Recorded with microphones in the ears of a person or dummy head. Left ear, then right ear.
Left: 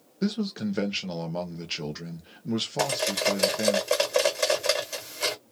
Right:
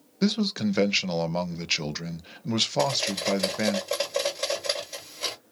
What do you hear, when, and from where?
0.2 s a man speaking: 30° right (ahead or behind), 0.5 m
2.8 s cutlery clinking: 45° left (ahead or behind), 1.5 m